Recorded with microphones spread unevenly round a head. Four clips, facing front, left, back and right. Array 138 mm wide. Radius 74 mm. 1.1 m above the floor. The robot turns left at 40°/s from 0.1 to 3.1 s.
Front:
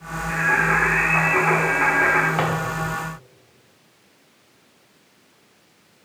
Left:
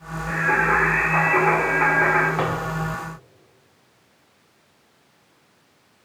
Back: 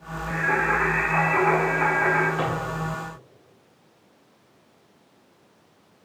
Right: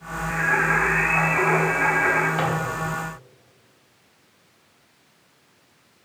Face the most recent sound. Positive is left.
turn(degrees=-25)